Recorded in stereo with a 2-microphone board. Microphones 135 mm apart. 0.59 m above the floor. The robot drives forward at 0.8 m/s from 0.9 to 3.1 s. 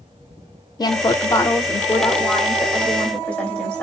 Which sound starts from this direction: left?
A woman speaking, at 0.8 s.